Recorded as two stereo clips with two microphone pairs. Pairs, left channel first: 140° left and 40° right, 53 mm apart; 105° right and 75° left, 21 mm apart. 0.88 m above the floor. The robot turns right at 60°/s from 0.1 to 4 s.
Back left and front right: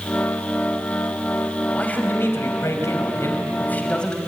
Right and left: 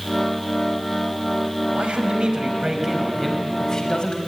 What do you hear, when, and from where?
1.7 s a man speaking: 70° left, 4.5 m; by 4.2 s 150° right, 4.5 m